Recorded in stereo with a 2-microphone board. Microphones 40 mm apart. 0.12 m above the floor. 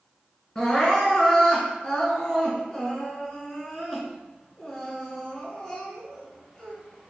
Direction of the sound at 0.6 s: 20° left (ahead or behind).